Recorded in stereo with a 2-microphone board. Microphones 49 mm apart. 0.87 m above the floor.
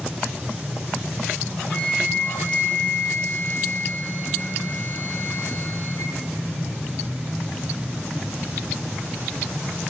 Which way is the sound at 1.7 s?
30° left (ahead or behind).